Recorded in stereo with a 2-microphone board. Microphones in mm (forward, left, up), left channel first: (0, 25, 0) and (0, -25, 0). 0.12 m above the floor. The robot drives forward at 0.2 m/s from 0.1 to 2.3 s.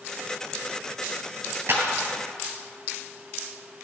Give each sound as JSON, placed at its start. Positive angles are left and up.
{"t": 1.7, "sound": "a clap", "side_deg": -50, "distance_m": 2.0}